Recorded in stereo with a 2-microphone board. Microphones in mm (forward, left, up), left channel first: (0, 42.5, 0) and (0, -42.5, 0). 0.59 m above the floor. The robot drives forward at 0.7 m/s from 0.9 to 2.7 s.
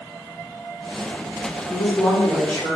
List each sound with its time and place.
1.7 s a woman speaking: 10° left (ahead or behind), 1.8 m